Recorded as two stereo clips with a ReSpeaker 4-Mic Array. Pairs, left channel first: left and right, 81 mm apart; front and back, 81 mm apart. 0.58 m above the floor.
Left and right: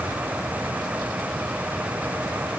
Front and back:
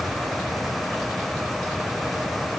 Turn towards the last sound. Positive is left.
No sound to turn to.